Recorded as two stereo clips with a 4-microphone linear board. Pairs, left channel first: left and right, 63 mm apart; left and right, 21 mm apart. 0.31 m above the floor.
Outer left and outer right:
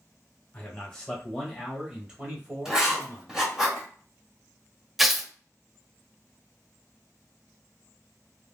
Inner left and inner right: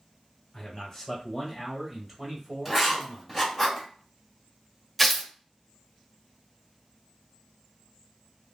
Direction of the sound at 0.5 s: 20° left (ahead or behind).